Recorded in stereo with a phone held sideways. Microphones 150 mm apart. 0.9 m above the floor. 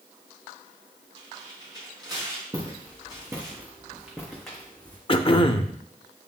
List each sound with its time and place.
1.2 s tearing paper: 25° right (ahead or behind), 4.5 m
2.5 s footsteps: 20° right (ahead or behind), 4 m; by 5.0 s 15° left (ahead or behind), 2 m
5.1 s throat clearing: 35° left (ahead or behind), 0.6 m